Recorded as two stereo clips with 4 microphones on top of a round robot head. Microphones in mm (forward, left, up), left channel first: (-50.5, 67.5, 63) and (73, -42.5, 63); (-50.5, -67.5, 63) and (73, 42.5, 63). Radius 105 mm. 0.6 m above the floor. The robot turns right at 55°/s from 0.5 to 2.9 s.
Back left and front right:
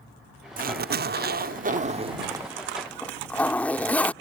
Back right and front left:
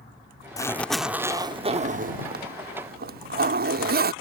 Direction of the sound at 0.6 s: 70° right.